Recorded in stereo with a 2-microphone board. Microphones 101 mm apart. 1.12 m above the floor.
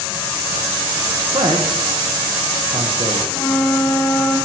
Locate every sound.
1.3 s a man speaking: 55° right (ahead or behind), 1.1 m
3.3 s a flute: 20° left (ahead or behind), 1.8 m